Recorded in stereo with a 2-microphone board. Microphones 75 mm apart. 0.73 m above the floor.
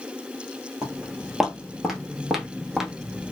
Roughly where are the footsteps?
Centre.